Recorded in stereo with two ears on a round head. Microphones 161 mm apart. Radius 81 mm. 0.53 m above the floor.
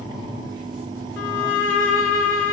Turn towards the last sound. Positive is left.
turn(degrees=75)  # may be behind; listen again after turning